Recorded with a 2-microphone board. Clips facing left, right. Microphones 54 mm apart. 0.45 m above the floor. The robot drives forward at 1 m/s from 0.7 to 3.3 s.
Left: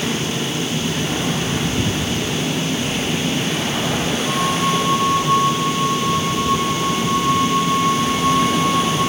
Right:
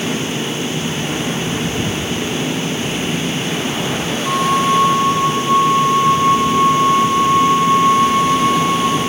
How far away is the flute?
About 1.0 m.